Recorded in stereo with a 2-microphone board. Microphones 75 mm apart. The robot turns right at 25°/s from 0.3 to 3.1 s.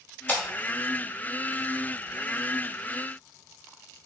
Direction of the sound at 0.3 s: 20° left (ahead or behind).